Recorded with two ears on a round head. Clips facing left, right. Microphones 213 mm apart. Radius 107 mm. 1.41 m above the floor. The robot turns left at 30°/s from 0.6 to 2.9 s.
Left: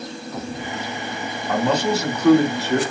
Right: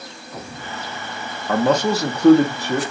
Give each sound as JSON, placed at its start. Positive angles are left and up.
{"t": 1.5, "sound": "a man speaking", "azimuth_deg": -130, "distance_m": 1.0}